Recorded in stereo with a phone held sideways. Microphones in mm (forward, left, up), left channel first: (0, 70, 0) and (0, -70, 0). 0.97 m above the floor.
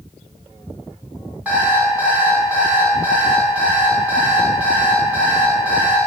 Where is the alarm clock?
10° right (ahead or behind), 3.5 m.